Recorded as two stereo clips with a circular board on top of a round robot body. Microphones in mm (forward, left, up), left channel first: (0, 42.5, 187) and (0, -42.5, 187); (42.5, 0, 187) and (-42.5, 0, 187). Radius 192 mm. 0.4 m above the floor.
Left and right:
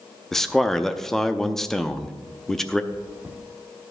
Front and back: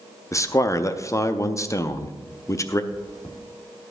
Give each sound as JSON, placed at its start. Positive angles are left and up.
{"t": 0.3, "sound": "a man speaking", "azimuth_deg": 10, "distance_m": 0.9}
{"t": 2.9, "sound": "chewing", "azimuth_deg": -20, "distance_m": 2.0}